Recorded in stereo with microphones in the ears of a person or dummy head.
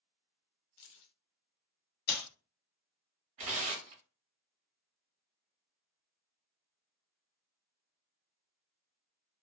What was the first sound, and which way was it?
Keys jangling, 65° left (ahead or behind).